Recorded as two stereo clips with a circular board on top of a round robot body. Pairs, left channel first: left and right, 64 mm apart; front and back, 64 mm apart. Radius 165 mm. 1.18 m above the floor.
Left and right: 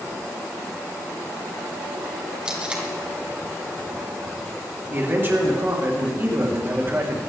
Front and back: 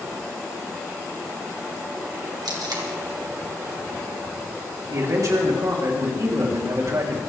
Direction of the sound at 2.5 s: 165° right.